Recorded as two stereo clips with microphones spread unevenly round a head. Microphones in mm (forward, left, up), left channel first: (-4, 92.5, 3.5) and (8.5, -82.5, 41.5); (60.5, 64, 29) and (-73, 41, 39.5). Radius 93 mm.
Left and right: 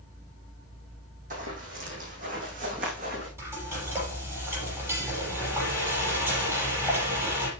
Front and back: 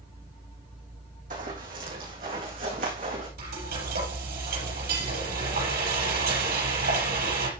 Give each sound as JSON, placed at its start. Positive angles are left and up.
{"t": 1.3, "sound": "running footsteps", "azimuth_deg": -125, "distance_m": 3.0}
{"t": 3.4, "sound": "frying", "azimuth_deg": -160, "distance_m": 5.5}